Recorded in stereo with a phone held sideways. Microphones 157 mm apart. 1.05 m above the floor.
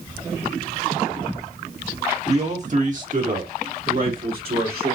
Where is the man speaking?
40° right (ahead or behind), 1.5 m; by 5.0 s 70° right (ahead or behind), 3 m.